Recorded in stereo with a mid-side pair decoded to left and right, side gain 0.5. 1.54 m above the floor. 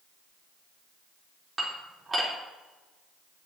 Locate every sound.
1.6 s dishes clattering: 25° right, 3.5 m